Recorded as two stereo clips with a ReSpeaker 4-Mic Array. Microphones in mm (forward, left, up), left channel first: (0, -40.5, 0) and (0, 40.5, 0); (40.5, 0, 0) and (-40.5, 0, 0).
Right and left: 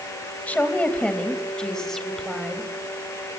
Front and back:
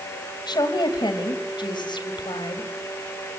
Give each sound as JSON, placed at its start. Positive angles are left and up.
{"t": 0.5, "sound": "a woman speaking", "azimuth_deg": -20, "distance_m": 3.5}